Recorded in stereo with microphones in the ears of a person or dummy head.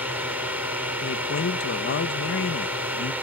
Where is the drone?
10° right (ahead or behind).